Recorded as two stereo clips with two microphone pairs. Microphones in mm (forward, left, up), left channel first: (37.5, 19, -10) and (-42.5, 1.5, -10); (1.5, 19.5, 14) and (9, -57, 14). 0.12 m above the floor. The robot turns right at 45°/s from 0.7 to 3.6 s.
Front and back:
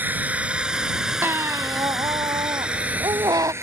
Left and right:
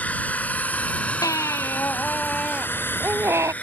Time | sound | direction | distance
0.0 | a drone | 145° left | ?
1.2 | a baby crying | 130° left | ?